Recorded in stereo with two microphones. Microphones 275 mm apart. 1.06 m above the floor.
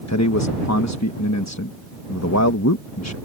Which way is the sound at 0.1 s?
65° left (ahead or behind).